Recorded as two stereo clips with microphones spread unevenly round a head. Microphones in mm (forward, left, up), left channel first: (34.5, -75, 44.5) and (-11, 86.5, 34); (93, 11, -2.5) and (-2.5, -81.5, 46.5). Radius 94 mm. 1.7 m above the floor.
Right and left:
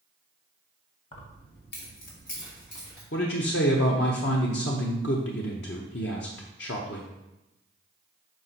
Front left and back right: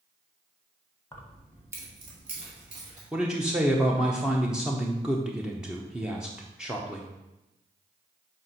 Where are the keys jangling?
40° right, 1.3 m; by 3.0 s 120° right, 3 m.